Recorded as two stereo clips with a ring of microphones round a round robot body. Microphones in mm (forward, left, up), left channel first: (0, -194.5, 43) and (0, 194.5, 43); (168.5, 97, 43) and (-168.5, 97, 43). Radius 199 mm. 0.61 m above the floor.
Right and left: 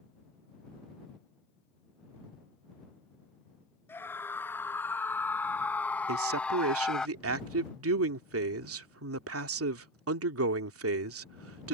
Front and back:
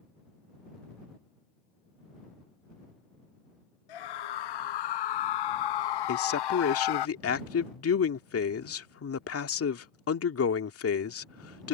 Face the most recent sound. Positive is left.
turn(degrees=40)